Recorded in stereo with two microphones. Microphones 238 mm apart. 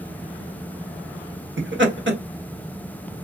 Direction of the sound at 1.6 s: 55° right (ahead or behind).